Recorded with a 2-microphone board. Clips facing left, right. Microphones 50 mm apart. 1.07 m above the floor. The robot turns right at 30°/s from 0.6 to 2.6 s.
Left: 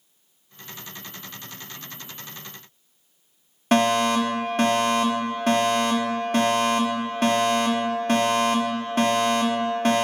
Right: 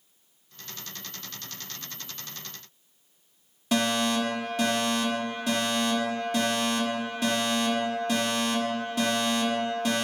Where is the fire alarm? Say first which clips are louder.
Left 6 dB; 50° left (ahead or behind), 4.5 m.